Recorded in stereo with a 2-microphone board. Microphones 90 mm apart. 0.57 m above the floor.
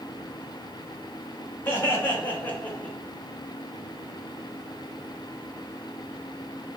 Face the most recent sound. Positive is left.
turn(degrees=15)  # may be behind; listen again after turning